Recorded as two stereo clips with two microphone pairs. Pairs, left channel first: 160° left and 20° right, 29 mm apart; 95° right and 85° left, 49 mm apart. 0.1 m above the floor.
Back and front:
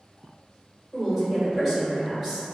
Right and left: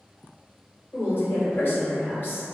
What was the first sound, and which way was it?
A woman speaking, 115° right.